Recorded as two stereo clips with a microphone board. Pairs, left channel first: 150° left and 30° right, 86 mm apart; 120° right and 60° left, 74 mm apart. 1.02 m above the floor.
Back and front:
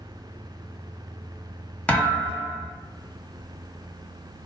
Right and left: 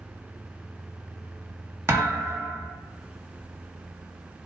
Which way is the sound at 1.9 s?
90° left.